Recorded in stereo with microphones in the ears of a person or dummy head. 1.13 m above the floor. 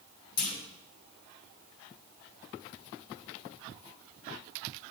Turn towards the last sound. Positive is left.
turn(degrees=45)  # may be behind; listen again after turning